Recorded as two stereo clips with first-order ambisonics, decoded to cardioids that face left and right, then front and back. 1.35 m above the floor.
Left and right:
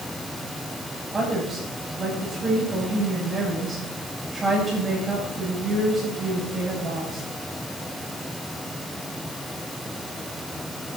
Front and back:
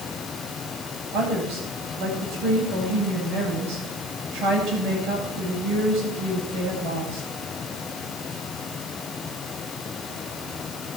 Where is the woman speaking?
170° right, 9 m.